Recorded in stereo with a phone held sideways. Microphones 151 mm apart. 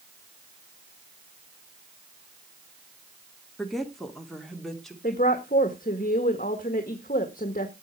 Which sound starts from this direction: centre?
A woman speaking, at 3.6 s.